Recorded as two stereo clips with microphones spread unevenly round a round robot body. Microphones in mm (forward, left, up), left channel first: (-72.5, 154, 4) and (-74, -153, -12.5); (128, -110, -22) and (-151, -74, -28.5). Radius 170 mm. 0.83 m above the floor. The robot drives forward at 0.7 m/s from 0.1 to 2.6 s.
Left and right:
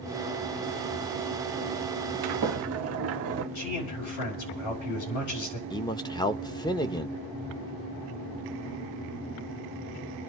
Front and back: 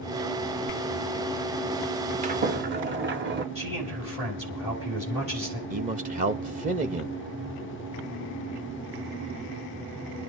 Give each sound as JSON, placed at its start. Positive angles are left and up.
{"t": 2.2, "sound": "a sliding door", "azimuth_deg": -120, "distance_m": 0.8}
{"t": 3.5, "sound": "a man speaking", "azimuth_deg": 100, "distance_m": 6.0}
{"t": 5.7, "sound": "a man speaking", "azimuth_deg": 160, "distance_m": 0.6}